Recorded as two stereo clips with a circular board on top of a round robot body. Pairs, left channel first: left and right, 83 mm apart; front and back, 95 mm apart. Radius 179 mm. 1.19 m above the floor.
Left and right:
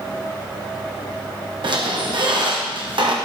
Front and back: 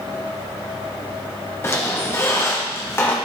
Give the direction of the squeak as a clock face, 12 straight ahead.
2 o'clock.